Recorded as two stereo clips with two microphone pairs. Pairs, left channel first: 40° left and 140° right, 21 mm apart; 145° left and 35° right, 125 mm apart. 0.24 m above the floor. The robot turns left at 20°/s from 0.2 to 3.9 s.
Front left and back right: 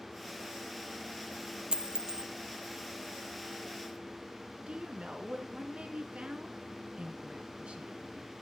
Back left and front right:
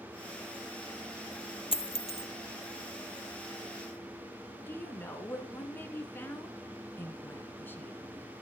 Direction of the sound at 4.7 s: 145° right.